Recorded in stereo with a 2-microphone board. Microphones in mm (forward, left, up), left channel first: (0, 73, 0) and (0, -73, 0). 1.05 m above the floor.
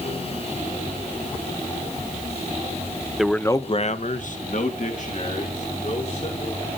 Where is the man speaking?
5° right (ahead or behind), 0.9 m; by 6.7 s 55° left (ahead or behind), 4.5 m.